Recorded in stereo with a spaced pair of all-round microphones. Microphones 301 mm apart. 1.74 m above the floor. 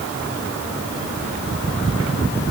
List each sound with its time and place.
Only background noise.